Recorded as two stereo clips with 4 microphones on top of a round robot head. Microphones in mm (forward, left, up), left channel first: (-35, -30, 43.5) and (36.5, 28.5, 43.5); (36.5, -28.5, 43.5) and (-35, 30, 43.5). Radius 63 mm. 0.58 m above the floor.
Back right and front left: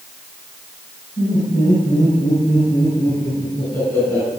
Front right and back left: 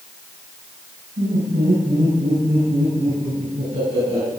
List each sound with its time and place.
1.2 s laughter: 175° left, 8 m; by 4.3 s 170° left, 10.5 m